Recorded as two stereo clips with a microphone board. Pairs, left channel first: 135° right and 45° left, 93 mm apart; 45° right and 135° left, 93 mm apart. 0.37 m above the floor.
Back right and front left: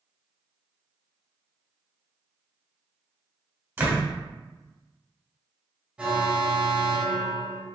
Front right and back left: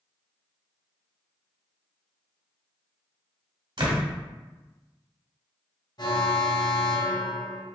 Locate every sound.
3.8 s a door slam: 110° left, 1.4 m
6.0 s an alarm: 30° right, 1.6 m